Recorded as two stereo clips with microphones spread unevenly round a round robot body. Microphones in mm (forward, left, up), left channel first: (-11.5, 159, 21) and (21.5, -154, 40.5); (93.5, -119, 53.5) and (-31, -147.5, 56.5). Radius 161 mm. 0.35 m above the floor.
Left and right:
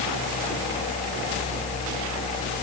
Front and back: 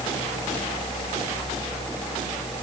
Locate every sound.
Only background noise.